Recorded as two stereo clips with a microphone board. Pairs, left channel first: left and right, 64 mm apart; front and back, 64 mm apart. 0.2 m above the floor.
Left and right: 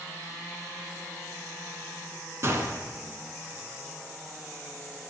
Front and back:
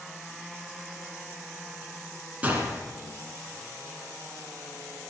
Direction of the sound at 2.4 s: 120° right.